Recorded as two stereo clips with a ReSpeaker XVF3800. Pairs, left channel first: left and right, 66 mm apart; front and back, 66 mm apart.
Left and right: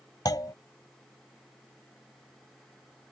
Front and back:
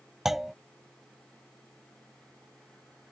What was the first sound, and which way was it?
A clunk, 95° left.